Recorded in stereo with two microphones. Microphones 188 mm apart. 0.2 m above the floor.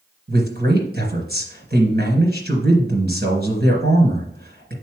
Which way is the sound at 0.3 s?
55° right (ahead or behind).